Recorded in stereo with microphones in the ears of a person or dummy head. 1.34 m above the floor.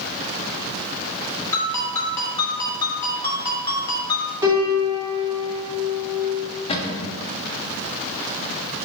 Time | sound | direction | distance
1.5 | a ringtone | 15° left (ahead or behind) | 2.5 m
4.4 | a piano | 20° right (ahead or behind) | 3 m
6.7 | a cupboard door | 30° left (ahead or behind) | 1.3 m